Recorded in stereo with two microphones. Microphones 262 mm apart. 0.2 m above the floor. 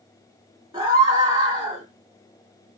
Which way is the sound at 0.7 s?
15° right (ahead or behind).